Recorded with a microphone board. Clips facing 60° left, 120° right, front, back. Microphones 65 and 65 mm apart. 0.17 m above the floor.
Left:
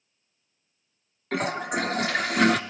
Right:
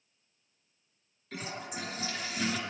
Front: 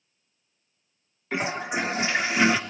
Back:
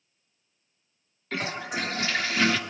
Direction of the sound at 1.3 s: 70° left.